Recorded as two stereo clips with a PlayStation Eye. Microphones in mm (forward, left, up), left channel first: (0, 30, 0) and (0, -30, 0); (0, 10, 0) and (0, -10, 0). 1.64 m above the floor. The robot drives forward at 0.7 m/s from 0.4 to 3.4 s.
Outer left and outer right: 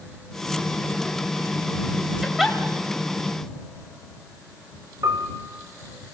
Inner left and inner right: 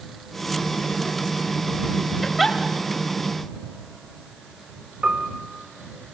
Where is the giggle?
5° right (ahead or behind), 3.5 m.